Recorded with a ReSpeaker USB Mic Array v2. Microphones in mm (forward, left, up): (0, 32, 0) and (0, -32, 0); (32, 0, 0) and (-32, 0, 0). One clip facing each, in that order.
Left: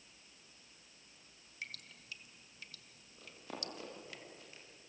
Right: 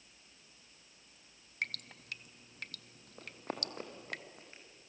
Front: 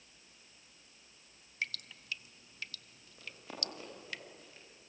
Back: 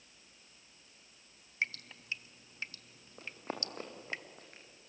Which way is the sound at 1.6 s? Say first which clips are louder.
Right 9 dB, back 3 dB; 120° right.